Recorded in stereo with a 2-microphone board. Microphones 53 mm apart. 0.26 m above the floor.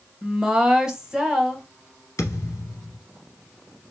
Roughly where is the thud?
Left.